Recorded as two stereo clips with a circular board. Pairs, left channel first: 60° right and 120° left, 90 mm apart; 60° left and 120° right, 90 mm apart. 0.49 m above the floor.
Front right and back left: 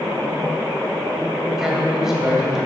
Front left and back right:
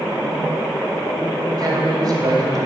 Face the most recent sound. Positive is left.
turn(degrees=-155)